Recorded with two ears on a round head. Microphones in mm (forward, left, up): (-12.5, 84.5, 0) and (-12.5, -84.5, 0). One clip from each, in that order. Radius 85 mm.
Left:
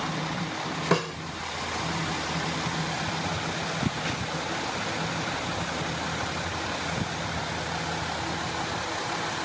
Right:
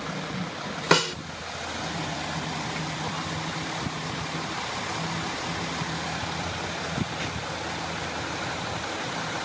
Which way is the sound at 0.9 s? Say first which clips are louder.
Right 6 dB; 85° right.